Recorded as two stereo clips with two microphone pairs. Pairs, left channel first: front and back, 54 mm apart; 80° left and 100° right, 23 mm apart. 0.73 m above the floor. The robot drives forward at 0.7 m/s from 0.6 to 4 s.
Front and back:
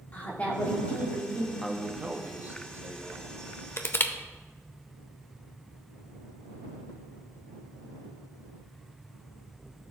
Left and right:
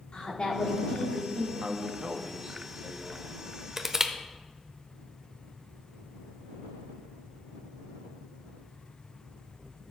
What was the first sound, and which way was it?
A woman speaking, 55° left.